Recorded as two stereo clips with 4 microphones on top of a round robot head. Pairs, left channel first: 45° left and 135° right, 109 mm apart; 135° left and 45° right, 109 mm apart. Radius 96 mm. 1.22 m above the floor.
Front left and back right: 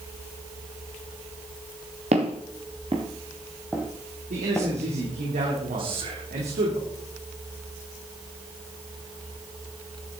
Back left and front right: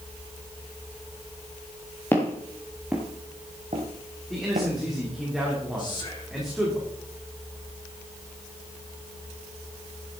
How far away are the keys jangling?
No keys jangling in this recording.